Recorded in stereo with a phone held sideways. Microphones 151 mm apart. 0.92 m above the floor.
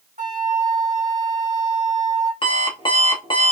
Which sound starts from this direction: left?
An alarm clock, at 2.4 s.